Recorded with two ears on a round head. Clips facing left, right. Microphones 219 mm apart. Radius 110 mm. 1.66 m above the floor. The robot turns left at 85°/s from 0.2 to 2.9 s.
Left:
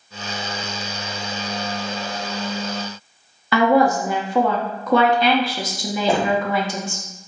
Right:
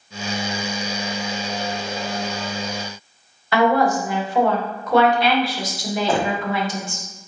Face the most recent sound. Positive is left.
turn(degrees=10)  # may be behind; listen again after turning